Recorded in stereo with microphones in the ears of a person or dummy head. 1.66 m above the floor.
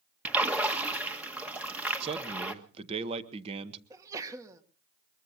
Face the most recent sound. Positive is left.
turn(degrees=-20)  # may be behind; listen again after turning